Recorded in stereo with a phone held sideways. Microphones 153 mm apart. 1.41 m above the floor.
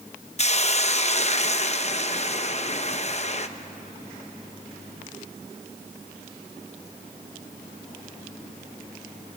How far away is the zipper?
No zipper in this recording.